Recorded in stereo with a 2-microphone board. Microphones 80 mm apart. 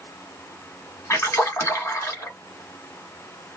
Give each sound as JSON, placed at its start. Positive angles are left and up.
{"t": 1.1, "sound": "a splash", "side_deg": 35, "distance_m": 1.2}